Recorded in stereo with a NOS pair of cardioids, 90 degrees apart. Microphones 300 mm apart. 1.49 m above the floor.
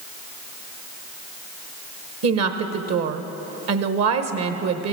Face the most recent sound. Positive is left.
turn(degrees=-55)